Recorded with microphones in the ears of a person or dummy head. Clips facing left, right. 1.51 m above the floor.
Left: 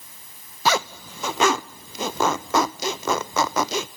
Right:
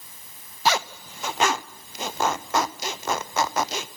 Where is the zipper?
70° left (ahead or behind), 0.6 m.